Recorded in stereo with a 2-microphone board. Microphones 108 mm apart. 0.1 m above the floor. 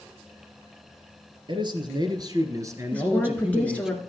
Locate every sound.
1.5 s a man speaking: 50° right (ahead or behind), 2 m; by 3.9 s 5° right (ahead or behind), 1.8 m
2.9 s a woman speaking: 15° left (ahead or behind), 1.5 m